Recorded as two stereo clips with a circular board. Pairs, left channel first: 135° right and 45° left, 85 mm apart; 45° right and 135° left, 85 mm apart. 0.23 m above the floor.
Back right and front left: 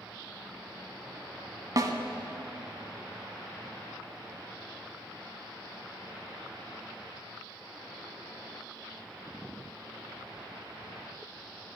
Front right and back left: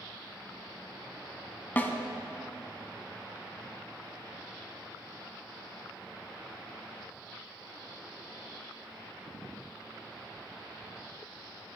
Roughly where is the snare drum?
Ahead.